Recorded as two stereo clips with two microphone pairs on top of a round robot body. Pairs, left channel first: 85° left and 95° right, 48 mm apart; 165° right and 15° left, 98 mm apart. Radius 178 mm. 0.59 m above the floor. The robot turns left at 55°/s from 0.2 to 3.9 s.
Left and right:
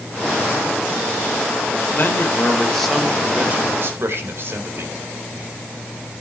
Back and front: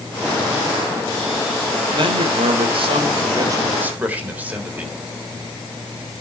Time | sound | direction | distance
1.9 | a man speaking | 50° left | 3.5 m